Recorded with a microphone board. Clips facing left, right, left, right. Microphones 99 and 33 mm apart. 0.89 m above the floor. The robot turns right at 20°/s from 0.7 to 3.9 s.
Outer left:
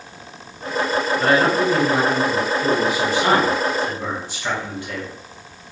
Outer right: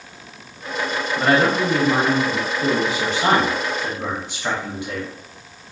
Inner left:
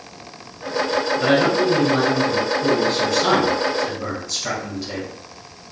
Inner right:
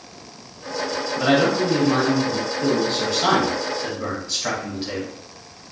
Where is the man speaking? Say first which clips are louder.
Outer right 1 dB, even; 95° right, 1.1 m; by 5.1 s 40° right, 1.1 m.